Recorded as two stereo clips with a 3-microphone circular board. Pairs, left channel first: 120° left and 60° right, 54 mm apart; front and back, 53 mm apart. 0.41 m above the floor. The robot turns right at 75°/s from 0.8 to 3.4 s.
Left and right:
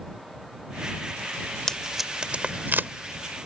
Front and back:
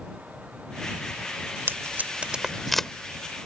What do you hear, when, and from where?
1.7 s tape being pulled: 165° right; by 2.9 s 75° right